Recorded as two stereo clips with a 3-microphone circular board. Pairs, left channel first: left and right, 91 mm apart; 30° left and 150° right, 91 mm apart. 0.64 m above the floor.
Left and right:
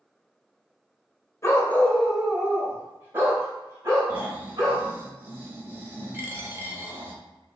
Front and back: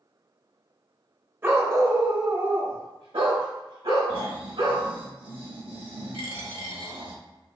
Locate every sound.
1.4 s a dog barking: 145° left, 0.7 m; by 4.9 s 140° right, 2.0 m
4.1 s snoring: 160° right, 1.0 m
6.1 s a dropped coin: 155° right, 0.9 m